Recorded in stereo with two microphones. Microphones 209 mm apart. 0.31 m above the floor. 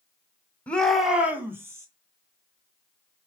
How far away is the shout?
About 1.5 m.